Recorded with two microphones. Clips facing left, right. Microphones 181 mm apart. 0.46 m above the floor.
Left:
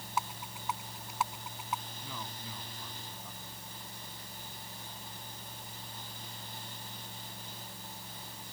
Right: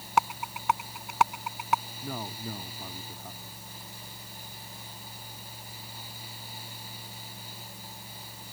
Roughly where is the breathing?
I don't hear breathing.